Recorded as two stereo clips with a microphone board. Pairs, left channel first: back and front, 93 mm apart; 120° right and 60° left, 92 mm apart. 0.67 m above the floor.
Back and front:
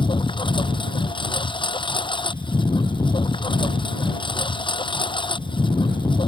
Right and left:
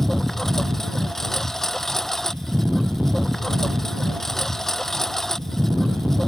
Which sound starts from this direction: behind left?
A lawn mower, at 0.0 s.